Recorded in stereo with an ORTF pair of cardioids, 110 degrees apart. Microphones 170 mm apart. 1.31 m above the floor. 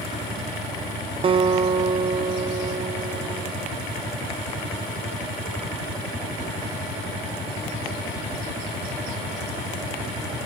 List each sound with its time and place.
1.2 s a guitar: 35° right, 0.8 m